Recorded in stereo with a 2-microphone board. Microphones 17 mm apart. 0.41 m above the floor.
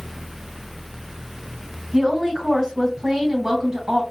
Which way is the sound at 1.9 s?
35° right (ahead or behind).